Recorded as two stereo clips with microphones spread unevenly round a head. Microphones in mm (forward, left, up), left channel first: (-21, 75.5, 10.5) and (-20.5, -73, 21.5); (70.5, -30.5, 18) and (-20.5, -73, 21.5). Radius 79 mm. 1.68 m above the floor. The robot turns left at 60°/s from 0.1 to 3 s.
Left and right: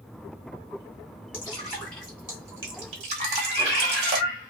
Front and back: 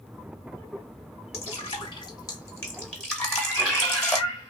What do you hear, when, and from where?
1.3 s dripping: 35° left, 1.3 m; by 4.2 s 65° right, 1.3 m
3.2 s a cat meowing: 20° left, 1.5 m